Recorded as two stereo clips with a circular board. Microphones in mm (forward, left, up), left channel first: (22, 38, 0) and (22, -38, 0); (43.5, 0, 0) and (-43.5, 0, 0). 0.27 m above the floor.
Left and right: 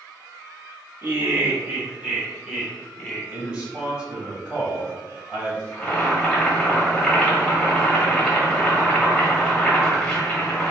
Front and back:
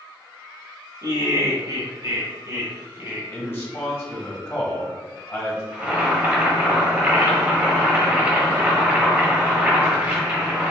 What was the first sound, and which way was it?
Laughter, 145° right.